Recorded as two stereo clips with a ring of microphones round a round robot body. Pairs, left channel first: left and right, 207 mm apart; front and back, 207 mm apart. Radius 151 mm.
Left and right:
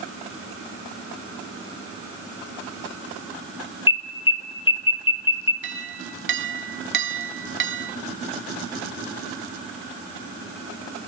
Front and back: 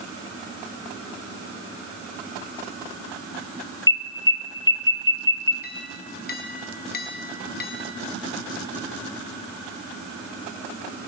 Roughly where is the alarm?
Ahead left.